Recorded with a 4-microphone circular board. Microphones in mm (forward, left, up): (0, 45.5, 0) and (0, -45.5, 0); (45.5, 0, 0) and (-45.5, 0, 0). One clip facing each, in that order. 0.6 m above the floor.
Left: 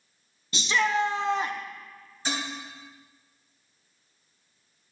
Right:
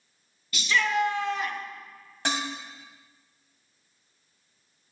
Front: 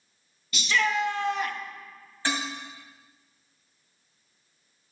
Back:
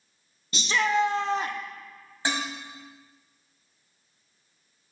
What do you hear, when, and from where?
0.5 s a shout: 140° left, 0.7 m
2.2 s dishes clattering: 110° right, 3 m